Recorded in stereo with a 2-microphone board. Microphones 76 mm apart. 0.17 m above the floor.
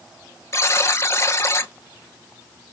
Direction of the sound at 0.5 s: 40° left (ahead or behind).